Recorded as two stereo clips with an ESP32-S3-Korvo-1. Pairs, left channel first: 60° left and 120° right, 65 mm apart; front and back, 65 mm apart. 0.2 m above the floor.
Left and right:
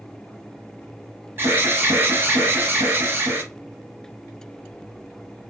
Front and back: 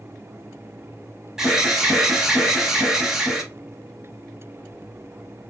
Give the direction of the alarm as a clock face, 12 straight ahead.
4 o'clock.